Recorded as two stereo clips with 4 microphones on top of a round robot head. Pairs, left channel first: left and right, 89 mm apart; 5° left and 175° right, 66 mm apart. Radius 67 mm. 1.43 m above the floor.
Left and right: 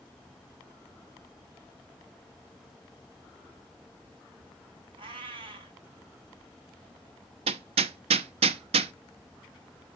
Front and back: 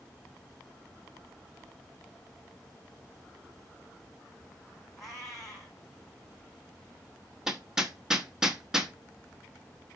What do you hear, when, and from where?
5.0 s a cat meowing: 80° right, 2 m
7.5 s hammering: 90° right, 0.7 m